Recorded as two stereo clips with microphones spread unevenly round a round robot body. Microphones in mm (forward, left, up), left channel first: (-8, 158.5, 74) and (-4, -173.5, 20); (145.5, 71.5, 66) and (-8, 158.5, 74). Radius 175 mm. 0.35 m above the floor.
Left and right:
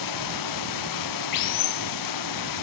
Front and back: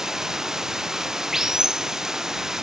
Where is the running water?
65° left.